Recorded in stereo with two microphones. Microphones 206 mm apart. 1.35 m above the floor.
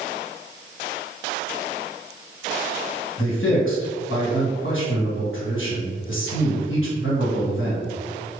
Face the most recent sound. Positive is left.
turn(degrees=75)  # may be behind; listen again after turning